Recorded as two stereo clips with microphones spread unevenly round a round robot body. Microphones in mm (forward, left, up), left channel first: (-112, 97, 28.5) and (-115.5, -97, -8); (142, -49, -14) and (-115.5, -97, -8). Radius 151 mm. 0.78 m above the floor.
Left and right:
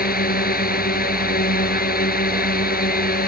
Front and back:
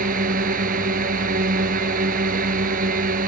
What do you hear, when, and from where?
0.0 s a drone: 125° left